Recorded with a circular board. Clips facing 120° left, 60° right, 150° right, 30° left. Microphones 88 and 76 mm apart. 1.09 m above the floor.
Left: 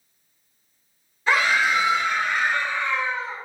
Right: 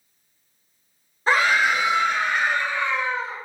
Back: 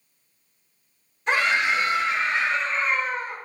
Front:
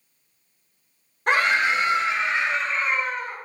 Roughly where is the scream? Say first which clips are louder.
Right 1 dB, front 2 dB; ahead.